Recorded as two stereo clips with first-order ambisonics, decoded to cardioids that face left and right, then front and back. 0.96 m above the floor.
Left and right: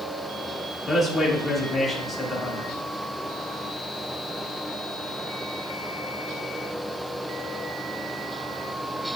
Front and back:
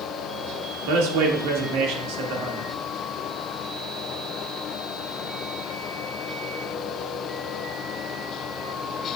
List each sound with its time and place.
0.9 s a man speaking: 175° left, 1.8 m